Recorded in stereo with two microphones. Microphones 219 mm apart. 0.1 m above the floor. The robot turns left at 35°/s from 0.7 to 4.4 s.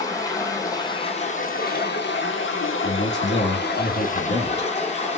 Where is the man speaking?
120° left, 2.5 m; by 4.7 s 65° left, 2.5 m.